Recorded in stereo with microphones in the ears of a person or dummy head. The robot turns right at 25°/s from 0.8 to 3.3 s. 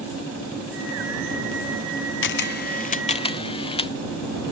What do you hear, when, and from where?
2.2 s a camera shutter: 50° left (ahead or behind); by 3.9 s 25° left (ahead or behind)